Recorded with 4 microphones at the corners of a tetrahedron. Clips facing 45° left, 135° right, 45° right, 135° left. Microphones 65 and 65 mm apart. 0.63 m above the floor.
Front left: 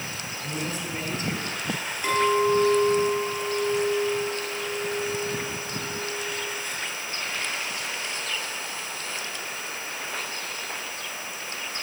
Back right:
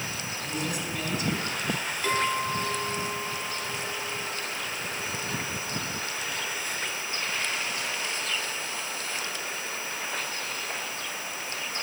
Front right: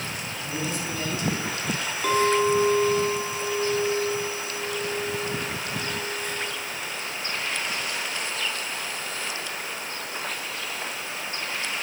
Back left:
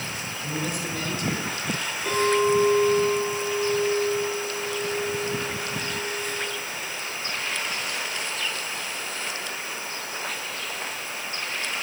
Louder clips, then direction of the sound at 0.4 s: Front left 1 dB, back left 1 dB; 95° left.